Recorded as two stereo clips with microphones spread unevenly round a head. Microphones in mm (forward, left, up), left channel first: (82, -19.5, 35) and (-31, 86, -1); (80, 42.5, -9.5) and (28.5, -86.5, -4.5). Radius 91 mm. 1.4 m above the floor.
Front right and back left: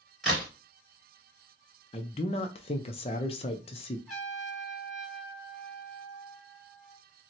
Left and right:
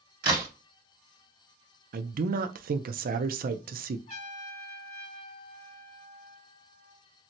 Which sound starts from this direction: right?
A man speaking, at 1.9 s.